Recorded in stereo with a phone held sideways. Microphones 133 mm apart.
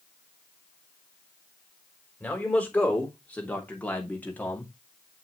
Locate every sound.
2.2 s a man speaking: 10° left (ahead or behind), 3.5 m; by 4.7 s 15° left (ahead or behind), 2 m